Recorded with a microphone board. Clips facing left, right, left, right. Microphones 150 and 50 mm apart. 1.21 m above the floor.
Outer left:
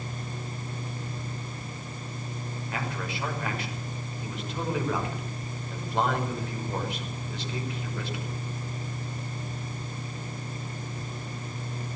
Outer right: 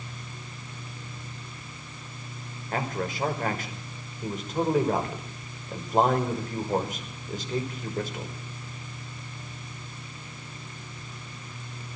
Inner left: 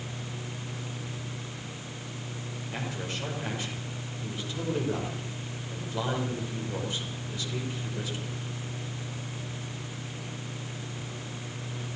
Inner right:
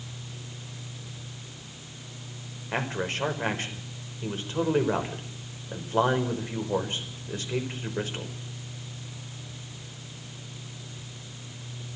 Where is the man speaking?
45° right (ahead or behind), 5.5 m.